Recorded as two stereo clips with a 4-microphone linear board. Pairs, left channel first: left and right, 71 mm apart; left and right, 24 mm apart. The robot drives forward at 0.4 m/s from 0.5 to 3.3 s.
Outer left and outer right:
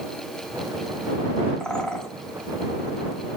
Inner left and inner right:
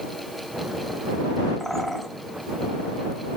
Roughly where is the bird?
Centre.